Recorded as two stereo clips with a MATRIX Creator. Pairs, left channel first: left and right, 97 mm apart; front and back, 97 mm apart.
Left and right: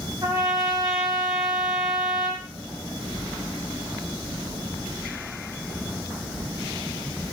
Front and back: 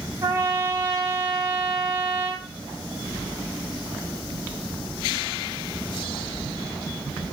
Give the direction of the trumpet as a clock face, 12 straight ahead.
4 o'clock.